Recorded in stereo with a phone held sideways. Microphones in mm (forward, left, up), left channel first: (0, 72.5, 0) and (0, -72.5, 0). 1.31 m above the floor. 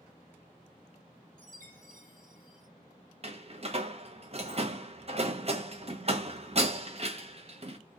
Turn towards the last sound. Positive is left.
turn(degrees=-45)  # may be behind; listen again after turning